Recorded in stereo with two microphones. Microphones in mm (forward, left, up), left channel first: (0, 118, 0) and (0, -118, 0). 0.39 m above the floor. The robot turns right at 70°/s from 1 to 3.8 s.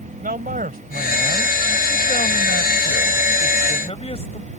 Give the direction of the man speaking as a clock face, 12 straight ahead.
1 o'clock.